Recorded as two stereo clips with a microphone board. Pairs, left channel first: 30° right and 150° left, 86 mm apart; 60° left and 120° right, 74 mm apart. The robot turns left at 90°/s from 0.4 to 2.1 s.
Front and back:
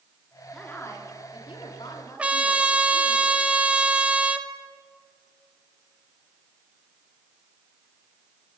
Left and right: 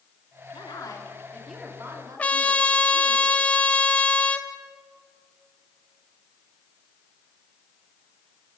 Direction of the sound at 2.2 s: 95° left.